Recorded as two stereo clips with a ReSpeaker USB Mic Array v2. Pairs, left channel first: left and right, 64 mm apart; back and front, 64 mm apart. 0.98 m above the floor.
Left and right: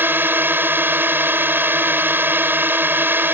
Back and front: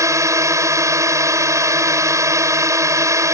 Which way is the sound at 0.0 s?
30° right.